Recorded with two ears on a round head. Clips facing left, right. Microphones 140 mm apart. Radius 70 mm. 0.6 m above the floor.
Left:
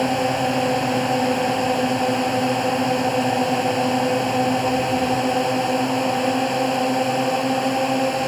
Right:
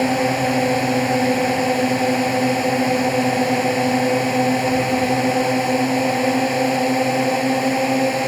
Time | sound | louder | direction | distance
0.0 | a drone | right 2 dB | 10° right (ahead or behind) | ?